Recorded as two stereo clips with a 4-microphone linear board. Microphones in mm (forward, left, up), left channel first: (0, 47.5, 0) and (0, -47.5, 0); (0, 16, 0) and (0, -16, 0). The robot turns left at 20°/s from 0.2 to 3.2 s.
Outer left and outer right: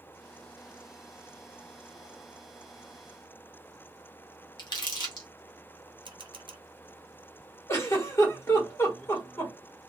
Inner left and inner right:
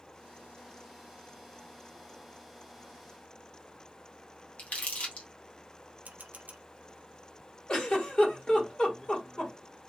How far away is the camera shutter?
About 0.6 m.